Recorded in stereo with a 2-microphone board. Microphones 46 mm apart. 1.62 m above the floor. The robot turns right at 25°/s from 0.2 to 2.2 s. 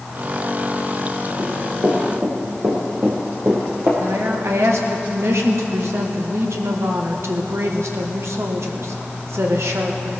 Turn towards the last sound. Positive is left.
turn(degrees=-75)  # may be behind; listen again after turning